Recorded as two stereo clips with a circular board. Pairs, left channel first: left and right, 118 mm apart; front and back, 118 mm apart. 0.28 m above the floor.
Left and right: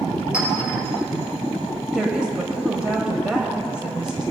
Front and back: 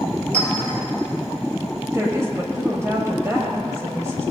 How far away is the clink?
About 4 m.